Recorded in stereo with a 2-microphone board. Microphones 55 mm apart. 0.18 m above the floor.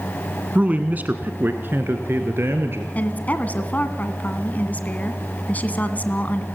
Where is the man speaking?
30° right (ahead or behind), 1.2 m; by 2.9 s 50° right (ahead or behind), 2.5 m.